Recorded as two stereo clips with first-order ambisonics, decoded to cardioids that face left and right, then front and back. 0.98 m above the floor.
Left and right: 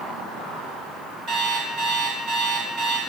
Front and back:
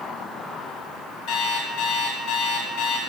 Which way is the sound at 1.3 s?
35° right.